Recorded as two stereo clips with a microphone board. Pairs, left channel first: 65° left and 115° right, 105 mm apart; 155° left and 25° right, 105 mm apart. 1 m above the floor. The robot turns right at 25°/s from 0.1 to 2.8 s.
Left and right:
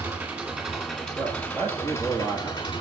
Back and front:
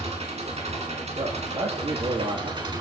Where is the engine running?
45° right, 1.8 m; by 2.8 s 20° left, 1.8 m.